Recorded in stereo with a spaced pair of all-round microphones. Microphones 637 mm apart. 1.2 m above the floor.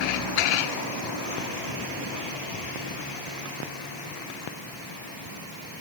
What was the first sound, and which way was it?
Only background noise.